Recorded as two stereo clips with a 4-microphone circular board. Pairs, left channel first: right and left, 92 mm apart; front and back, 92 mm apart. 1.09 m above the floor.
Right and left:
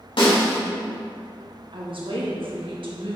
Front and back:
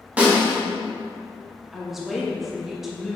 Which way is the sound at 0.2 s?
105° right.